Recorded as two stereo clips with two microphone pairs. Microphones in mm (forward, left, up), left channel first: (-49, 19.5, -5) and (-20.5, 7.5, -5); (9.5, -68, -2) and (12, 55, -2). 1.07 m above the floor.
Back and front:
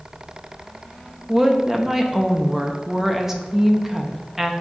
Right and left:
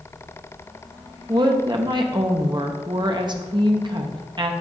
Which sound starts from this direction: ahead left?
A woman speaking, at 1.3 s.